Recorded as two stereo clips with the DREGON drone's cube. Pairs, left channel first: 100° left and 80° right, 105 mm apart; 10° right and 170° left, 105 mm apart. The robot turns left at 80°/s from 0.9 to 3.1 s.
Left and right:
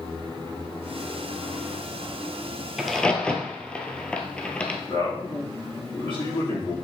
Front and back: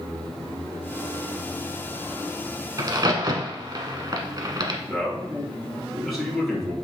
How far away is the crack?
About 1.0 m.